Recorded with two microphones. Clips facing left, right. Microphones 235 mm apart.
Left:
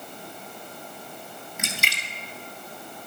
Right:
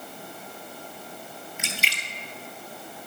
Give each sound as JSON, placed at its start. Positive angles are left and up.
{"t": 1.6, "sound": "a splash", "side_deg": 50, "distance_m": 1.1}